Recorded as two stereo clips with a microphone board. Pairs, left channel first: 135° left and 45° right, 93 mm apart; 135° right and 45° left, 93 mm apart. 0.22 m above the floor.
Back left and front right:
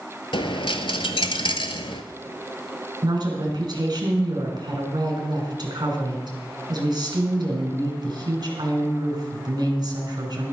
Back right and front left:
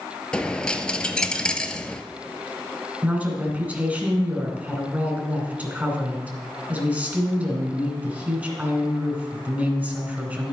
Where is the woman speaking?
25° right, 2.5 m.